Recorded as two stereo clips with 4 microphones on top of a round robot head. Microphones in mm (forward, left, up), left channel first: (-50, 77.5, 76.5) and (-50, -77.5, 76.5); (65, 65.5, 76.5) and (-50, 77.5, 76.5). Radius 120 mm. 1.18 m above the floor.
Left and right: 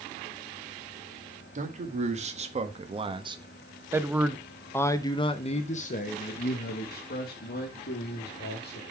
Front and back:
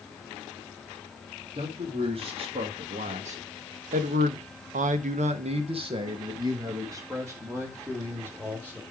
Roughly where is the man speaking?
Behind right.